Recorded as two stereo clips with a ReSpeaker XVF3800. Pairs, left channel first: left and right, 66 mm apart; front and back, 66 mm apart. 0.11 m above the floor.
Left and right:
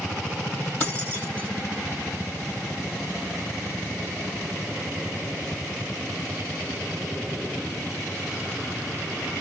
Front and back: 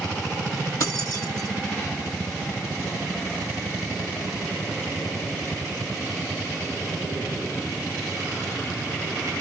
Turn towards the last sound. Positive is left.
turn(degrees=30)